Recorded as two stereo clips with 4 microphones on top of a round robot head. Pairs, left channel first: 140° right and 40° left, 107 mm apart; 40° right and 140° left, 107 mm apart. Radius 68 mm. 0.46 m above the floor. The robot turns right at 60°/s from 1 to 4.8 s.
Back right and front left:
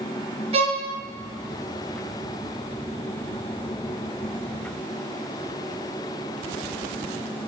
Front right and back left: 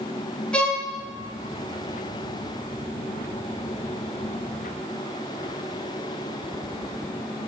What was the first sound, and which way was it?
A violin, 40° left.